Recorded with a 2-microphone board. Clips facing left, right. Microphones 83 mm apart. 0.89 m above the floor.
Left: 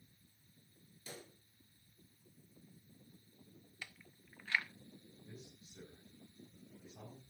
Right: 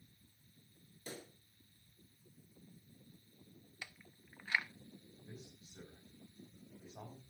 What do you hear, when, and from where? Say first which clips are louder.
1.1 s a pop: right 3 dB; 45° right (ahead or behind), 6 m
3.8 s chewing: even; 15° right (ahead or behind), 0.9 m
5.2 s a man speaking: right 1 dB; 45° right (ahead or behind), 5 m